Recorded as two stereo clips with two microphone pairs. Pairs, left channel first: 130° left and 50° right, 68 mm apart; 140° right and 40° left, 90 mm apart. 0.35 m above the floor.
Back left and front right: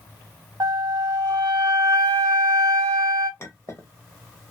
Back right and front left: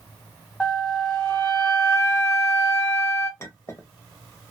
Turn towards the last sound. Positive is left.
turn(degrees=170)